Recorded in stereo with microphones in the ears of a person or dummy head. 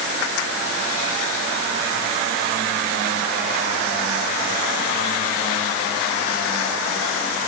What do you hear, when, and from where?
Only background noise.